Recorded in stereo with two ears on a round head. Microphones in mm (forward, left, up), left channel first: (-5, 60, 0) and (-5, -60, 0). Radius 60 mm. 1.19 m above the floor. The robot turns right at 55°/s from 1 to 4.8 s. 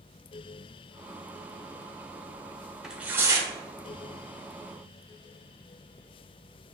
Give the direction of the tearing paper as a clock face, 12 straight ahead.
6 o'clock.